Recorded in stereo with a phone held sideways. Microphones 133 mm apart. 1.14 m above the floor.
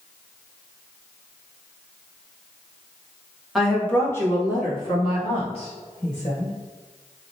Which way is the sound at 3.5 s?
Centre (ahead or behind).